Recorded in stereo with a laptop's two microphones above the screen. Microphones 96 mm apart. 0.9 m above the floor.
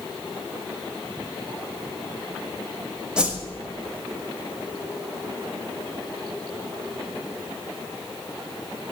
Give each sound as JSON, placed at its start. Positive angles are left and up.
{"t": 3.2, "sound": "a whoosh", "side_deg": -10, "distance_m": 1.4}